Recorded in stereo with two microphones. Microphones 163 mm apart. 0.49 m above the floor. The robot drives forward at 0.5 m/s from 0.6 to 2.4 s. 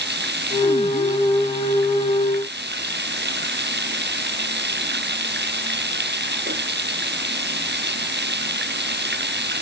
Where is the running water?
85° right.